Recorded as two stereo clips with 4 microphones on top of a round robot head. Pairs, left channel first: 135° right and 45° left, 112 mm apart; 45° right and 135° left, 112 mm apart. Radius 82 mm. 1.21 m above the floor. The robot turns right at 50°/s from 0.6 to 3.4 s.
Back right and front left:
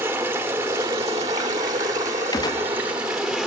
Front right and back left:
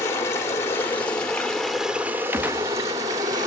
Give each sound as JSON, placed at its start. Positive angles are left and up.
{"t": 0.0, "sound": "running water", "azimuth_deg": -5, "distance_m": 0.8}
{"t": 2.3, "sound": "a gunshot", "azimuth_deg": -165, "distance_m": 0.7}